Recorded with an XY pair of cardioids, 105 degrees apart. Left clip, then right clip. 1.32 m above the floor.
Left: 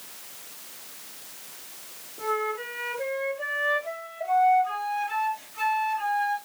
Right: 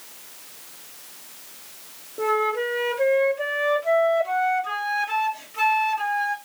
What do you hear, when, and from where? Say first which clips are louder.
2.2 s a flute: right 6 dB; 60° right, 2.5 m